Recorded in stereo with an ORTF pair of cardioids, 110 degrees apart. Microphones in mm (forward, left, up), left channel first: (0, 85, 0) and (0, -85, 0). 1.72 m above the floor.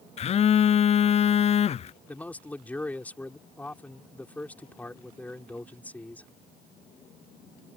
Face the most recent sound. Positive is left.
turn(degrees=10)